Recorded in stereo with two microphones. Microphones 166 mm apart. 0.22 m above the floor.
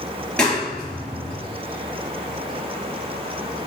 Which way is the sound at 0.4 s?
5° left (ahead or behind).